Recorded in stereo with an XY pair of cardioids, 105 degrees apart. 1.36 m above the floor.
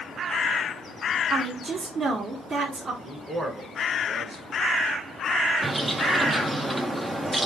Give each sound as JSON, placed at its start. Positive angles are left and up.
{"t": 1.3, "sound": "a woman speaking", "azimuth_deg": -45, "distance_m": 1.4}
{"t": 3.0, "sound": "a man speaking", "azimuth_deg": -25, "distance_m": 1.7}
{"t": 5.6, "sound": "a bird", "azimuth_deg": -15, "distance_m": 0.6}